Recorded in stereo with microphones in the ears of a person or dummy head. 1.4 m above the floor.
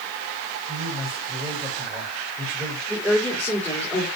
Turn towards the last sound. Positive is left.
turn(degrees=5)  # may be behind; listen again after turning